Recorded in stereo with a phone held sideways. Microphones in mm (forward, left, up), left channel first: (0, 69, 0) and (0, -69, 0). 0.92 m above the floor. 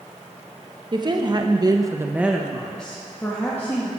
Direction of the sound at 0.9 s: 35° right (ahead or behind).